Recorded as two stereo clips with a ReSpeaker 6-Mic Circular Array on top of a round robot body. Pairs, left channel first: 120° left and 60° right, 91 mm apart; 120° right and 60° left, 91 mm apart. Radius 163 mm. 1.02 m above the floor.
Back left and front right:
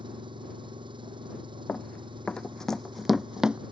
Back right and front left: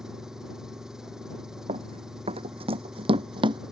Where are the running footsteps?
45° left; by 3.6 s 20° left.